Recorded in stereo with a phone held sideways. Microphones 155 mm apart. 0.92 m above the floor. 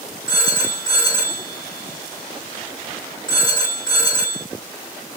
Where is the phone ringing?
25° left (ahead or behind), 1.7 m.